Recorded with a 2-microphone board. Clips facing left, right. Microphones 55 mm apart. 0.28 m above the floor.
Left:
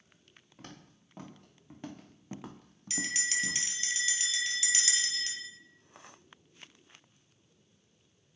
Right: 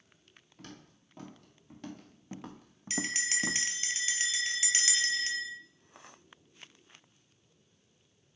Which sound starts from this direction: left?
Footsteps, at 0.6 s.